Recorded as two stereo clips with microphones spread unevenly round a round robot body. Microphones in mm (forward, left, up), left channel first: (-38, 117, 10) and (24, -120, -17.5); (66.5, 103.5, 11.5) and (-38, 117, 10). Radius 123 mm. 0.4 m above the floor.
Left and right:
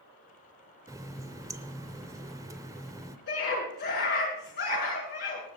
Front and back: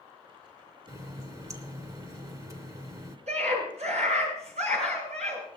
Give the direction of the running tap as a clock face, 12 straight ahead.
5 o'clock.